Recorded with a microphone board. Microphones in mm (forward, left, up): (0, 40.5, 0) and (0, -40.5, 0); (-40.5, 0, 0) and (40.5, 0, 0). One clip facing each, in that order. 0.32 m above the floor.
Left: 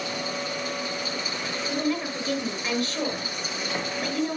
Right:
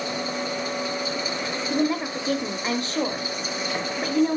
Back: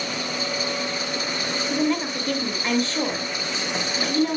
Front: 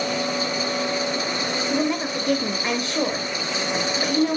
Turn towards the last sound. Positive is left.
turn(degrees=-55)